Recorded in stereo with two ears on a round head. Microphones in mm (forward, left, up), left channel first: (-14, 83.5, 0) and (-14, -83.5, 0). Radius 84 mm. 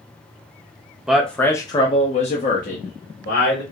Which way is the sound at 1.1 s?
5° right (ahead or behind).